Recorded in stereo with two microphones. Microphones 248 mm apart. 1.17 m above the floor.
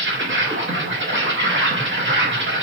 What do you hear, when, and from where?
0.0 s an insect: 50° right (ahead or behind), 0.9 m